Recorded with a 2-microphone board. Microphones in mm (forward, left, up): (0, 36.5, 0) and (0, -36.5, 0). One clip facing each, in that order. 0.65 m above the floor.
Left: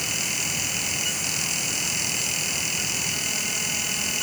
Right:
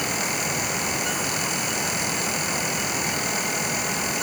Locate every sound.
Only background noise.